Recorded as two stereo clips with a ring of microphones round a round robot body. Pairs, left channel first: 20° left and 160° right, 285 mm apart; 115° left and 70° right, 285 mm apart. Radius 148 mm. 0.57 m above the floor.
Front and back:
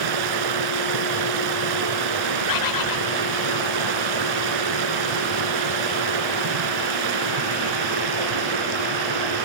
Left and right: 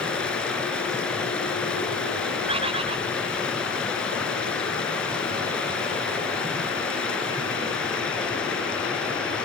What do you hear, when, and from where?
0.0 s running water: 160° right, 1.9 m
2.5 s a bird: 5° left, 1.5 m